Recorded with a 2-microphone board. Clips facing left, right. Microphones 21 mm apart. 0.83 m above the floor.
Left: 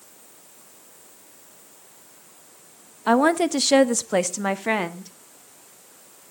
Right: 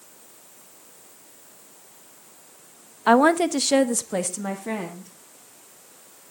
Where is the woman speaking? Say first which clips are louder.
Right 2 dB; 15° right (ahead or behind), 0.7 m; by 5.1 s 50° left (ahead or behind), 1.4 m.